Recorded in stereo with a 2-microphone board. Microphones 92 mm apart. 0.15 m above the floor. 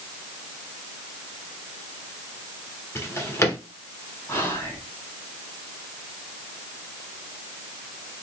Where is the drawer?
30° left (ahead or behind), 1.2 m.